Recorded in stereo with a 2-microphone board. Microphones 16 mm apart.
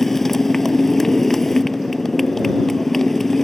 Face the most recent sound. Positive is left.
turn(degrees=15)  # may be behind; listen again after turning